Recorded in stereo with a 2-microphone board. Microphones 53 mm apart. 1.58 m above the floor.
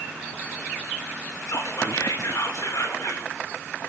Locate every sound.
1.5 s whispering: 85° left, 6.5 m